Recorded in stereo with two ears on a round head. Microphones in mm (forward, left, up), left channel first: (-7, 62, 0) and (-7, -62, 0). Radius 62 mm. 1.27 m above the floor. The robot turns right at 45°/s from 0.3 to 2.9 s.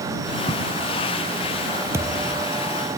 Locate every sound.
0.5 s writing: 40° right (ahead or behind); by 0.6 s 45° right (ahead or behind)
1.9 s a thud: 20° right (ahead or behind); by 2.5 s 5° left (ahead or behind)